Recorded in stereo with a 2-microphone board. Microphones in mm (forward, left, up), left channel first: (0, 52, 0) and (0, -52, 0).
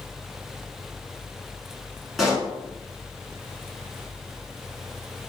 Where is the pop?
Centre (ahead or behind), 1.3 m.